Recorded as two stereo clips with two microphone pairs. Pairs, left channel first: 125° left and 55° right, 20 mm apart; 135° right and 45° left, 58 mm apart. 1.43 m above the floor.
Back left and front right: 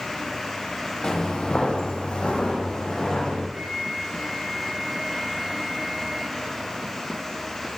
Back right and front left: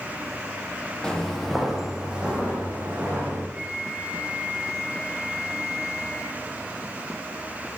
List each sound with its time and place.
1.0 s footsteps: 155° left, 1.9 m; by 3.4 s 105° left, 4 m
3.5 s a flute: 15° right, 1.4 m